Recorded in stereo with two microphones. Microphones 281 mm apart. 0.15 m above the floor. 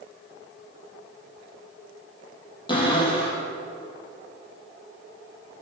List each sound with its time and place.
2.7 s a cupboard door: 20° left (ahead or behind), 5 m